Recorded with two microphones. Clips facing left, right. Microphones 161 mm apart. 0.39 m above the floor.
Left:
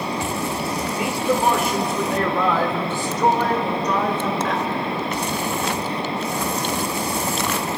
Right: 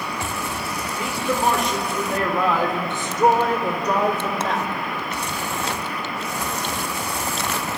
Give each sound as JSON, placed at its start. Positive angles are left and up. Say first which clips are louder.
{"t": 0.9, "sound": "a man speaking", "louder": "left 3 dB", "side_deg": 20, "distance_m": 1.5}